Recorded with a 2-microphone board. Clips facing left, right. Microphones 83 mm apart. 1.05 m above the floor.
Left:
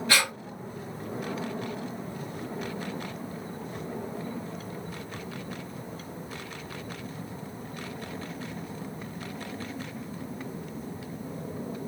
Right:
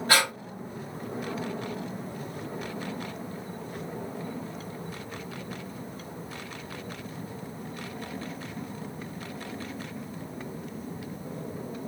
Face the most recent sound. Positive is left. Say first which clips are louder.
# right 2 dB
turn(degrees=-40)  # may be behind; listen again after turning